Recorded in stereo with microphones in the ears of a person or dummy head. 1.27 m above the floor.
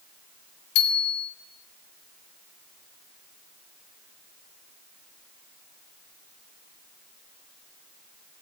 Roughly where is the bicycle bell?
Left.